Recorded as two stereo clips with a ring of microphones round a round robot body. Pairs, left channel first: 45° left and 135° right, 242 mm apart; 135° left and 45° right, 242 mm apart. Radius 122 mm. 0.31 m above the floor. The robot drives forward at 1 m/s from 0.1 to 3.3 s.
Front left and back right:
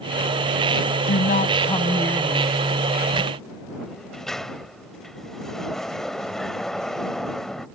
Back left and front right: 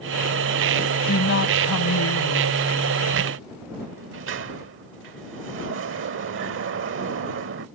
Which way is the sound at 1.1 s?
90° left.